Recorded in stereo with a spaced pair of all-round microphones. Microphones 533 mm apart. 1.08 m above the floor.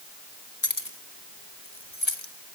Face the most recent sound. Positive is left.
turn(degrees=60)  # may be behind; listen again after turning